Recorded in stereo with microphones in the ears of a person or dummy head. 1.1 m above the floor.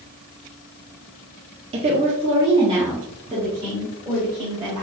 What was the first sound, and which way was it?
A woman speaking, 25° right (ahead or behind).